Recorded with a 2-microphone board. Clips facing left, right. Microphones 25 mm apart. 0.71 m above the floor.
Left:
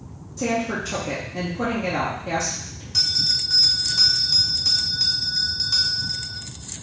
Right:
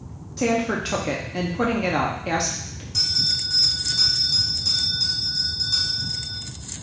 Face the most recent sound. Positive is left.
turn(degrees=30)  # may be behind; listen again after turning